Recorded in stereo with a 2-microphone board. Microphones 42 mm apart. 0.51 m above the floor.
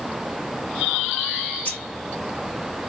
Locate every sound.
1.6 s keys jangling: 50° left (ahead or behind), 1.0 m